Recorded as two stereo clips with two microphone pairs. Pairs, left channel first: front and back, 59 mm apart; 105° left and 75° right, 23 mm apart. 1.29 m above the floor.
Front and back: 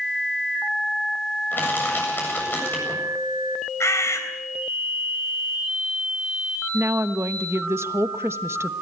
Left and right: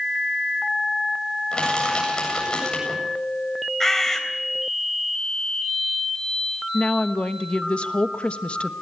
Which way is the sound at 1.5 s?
55° left.